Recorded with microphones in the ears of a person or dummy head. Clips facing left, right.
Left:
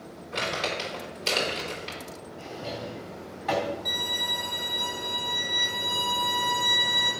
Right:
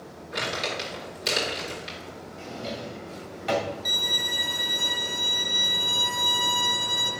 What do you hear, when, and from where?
0.3 s crumpling: 30° right (ahead or behind), 4.5 m
2.4 s a drawer: 35° right (ahead or behind), 2 m
3.9 s a violin: 65° right (ahead or behind), 3.5 m